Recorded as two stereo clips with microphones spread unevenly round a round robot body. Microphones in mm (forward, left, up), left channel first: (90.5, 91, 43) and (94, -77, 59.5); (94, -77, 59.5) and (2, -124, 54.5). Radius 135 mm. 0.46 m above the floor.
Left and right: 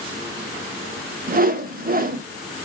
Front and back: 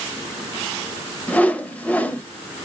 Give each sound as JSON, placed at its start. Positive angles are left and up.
{"t": 1.3, "sound": "a whoosh", "azimuth_deg": -50, "distance_m": 0.8}